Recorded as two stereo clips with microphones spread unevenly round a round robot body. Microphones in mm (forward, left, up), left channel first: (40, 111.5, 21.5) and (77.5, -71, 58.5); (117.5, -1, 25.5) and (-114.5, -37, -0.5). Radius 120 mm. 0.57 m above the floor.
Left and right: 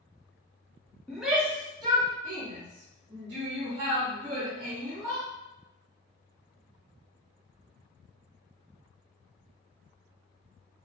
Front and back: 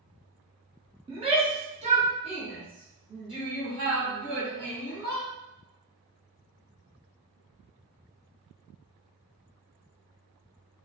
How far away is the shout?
About 0.9 m.